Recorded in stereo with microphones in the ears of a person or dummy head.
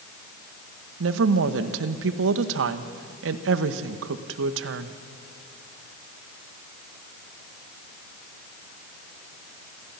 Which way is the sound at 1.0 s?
75° right (ahead or behind).